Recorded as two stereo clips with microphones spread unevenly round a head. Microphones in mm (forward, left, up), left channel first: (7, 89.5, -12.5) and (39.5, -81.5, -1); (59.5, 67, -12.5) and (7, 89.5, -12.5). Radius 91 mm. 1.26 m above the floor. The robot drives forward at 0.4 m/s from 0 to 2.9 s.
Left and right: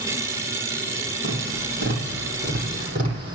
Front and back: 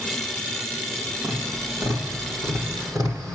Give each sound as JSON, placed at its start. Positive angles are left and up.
{"t": 1.2, "sound": "tapping", "azimuth_deg": -110, "distance_m": 7.5}